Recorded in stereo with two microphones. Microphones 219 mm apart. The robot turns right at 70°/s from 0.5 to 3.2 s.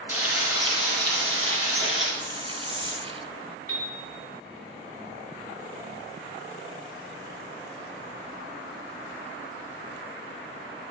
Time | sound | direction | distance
0.1 | frying | 170° right | 3.5 m
2.2 | a hiss | 45° left | 0.7 m
3.7 | a piano | 85° left | 2 m